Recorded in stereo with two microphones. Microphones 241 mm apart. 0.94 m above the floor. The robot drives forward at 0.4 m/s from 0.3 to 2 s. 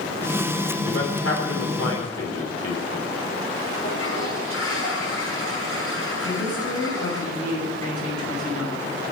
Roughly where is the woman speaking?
Left.